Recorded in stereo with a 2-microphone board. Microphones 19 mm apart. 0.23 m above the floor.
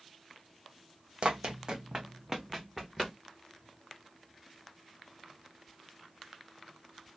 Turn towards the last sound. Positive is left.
turn(degrees=0)  # may be behind; listen again after turning